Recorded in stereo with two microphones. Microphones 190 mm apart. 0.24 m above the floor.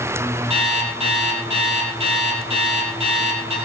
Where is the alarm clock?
30° right (ahead or behind), 5 m.